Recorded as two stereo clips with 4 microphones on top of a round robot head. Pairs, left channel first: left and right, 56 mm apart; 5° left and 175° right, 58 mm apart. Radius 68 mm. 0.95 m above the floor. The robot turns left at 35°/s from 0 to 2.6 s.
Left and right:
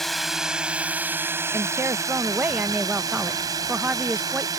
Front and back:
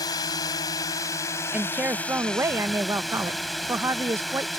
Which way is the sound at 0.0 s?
5° left.